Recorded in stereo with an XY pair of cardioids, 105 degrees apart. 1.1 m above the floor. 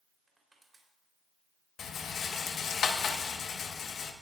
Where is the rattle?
60° left, 1.1 m.